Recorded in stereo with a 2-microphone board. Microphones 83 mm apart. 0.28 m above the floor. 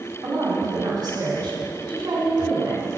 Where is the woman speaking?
55° right (ahead or behind), 2.5 m.